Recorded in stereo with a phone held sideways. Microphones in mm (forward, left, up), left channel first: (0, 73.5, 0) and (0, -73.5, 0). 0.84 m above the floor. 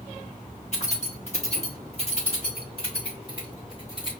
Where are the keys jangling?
50° left (ahead or behind), 1.5 m; by 4.1 s 35° left (ahead or behind), 3 m.